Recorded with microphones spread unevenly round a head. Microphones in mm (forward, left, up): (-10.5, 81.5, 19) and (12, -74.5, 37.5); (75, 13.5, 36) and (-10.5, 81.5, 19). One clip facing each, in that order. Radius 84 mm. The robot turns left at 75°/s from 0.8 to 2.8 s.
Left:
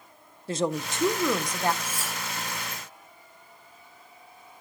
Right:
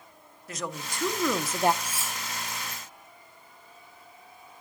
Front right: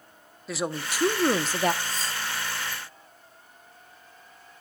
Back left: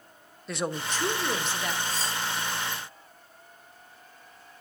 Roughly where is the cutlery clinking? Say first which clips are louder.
Left 2 dB, back left 1 dB; behind right.